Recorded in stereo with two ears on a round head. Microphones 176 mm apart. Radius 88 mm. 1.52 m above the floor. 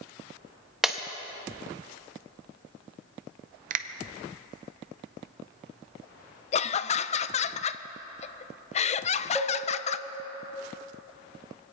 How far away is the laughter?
About 0.5 m.